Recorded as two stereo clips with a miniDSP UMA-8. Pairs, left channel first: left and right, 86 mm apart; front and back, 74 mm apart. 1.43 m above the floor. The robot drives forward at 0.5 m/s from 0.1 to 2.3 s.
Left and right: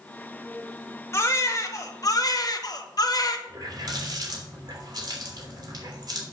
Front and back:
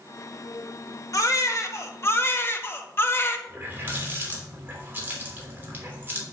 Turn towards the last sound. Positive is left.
turn(degrees=-120)